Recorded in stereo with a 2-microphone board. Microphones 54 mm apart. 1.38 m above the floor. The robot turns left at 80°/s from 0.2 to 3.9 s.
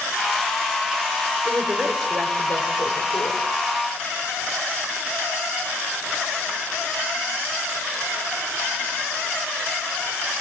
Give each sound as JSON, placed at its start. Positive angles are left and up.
{"t": 1.4, "sound": "a woman speaking", "azimuth_deg": -140, "distance_m": 6.0}